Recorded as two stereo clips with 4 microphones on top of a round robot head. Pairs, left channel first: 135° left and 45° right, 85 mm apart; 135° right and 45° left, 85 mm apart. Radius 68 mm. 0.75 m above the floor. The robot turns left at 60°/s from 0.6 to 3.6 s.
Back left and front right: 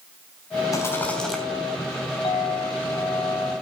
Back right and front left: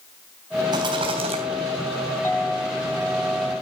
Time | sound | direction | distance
0.7 | a rattle | 85° left | 3 m
2.2 | a clink | 160° left | 4 m